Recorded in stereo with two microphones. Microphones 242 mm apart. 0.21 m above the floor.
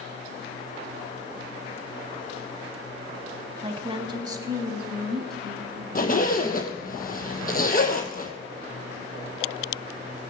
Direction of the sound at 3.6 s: 25° right (ahead or behind).